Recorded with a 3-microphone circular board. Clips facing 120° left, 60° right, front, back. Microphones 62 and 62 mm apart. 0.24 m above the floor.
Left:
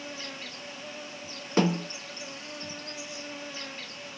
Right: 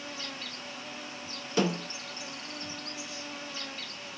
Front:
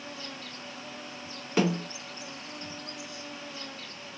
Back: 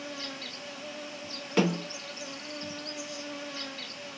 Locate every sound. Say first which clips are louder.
0.0 s an insect: left 1 dB, back 2 dB; 170° right, 1.2 m
1.6 s a snare drum: left 3 dB, even; 85° left, 2 m